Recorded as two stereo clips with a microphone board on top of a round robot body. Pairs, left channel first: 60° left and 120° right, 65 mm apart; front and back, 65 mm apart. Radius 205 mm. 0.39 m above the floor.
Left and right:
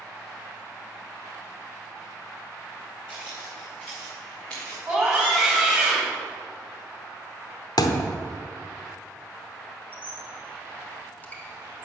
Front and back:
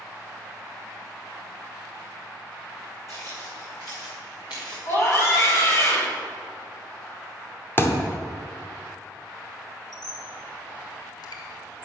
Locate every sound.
3.1 s footsteps: 50° right, 3 m; by 4.8 s 20° right, 4.5 m
4.8 s a scream: 50° right, 3.5 m
7.8 s a thud: 55° left, 1.0 m
9.9 s a squeak: 5° right, 1.7 m